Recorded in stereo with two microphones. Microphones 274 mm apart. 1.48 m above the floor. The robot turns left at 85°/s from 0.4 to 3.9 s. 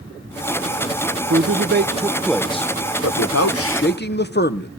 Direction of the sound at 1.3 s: 95° right.